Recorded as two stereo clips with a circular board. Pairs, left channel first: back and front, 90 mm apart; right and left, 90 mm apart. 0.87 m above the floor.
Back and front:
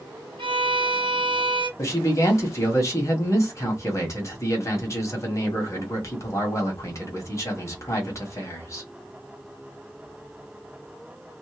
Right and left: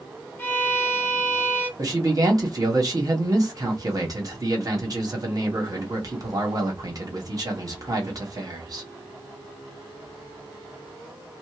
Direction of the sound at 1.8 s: 130° left.